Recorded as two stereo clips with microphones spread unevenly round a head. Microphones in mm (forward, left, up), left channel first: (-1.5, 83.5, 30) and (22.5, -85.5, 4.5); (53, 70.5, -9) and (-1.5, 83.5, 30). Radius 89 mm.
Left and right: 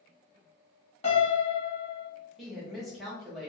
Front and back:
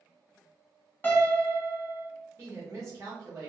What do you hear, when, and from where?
1.0 s a piano: 75° left, 1.2 m
2.4 s a woman speaking: 175° right, 1.3 m